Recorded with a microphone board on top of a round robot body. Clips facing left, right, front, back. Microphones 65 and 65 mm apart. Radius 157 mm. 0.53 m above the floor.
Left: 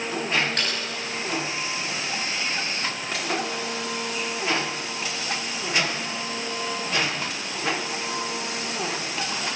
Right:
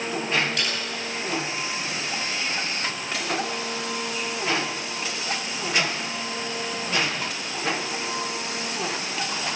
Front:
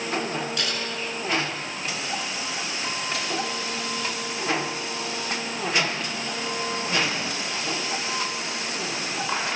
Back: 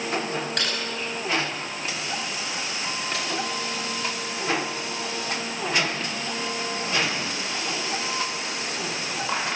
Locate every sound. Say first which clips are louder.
0.6 s typing on a keyboard: even, back 1 dB; 145° left, 10 m